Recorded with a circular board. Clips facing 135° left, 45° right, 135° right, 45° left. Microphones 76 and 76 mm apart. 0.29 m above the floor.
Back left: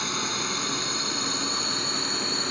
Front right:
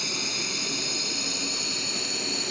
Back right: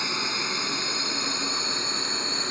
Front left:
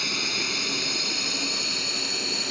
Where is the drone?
165° left; by 2.5 s 175° left.